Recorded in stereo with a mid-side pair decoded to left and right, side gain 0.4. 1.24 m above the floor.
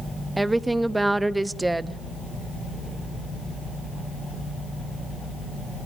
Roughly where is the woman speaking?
Ahead.